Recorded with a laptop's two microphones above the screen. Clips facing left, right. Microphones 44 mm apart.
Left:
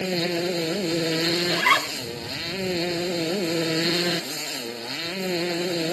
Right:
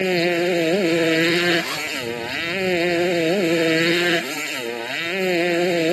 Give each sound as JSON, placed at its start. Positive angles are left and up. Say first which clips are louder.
{"t": 0.0, "sound": "a motorcycle", "louder": "right 6 dB", "side_deg": -45}
{"t": 1.5, "sound": "a zipper", "louder": "left 2 dB", "side_deg": 65}